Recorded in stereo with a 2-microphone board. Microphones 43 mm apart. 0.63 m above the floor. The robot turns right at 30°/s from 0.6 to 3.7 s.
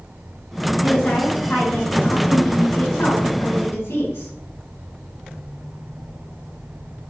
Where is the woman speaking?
15° left, 4 m; by 4.3 s 100° left, 4 m.